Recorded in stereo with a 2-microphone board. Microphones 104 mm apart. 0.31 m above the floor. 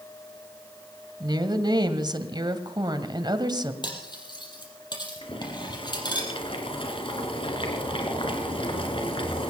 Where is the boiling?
60° left (ahead or behind), 3.5 m.